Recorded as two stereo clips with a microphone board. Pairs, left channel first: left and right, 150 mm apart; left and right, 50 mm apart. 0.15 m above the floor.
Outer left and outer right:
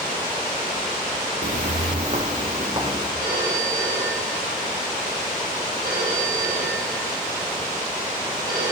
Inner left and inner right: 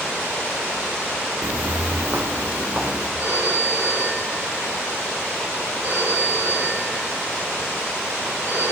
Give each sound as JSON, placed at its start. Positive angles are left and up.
{"t": 1.4, "sound": "footsteps", "side_deg": -70, "distance_m": 0.9}
{"t": 3.2, "sound": "a phone ringing", "side_deg": -65, "distance_m": 7.5}